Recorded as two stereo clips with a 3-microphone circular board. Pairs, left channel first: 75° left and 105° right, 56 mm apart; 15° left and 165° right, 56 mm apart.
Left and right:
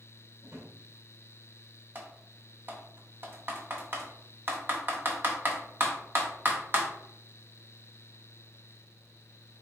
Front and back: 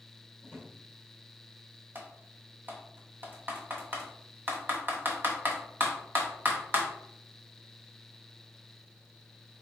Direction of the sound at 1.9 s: 130° right.